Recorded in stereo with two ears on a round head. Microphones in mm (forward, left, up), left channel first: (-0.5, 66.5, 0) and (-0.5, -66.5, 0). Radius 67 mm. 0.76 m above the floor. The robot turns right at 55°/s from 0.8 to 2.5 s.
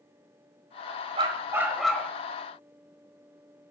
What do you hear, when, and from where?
1.2 s a dog barking: 40° right, 1.3 m; by 2.1 s 15° left, 1.3 m